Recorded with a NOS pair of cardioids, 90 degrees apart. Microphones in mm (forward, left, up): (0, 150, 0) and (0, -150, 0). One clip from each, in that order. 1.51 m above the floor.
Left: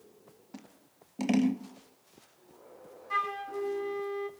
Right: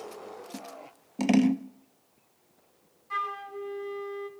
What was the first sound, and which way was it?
Scissors, 30° right.